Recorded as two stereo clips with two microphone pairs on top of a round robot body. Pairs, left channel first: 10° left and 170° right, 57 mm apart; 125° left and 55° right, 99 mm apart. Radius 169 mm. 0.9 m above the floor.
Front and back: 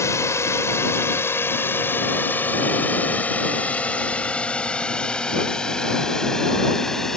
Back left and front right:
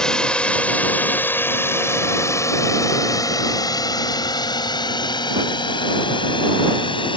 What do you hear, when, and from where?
0.0 s a drone: 40° left; by 7.2 s 90° left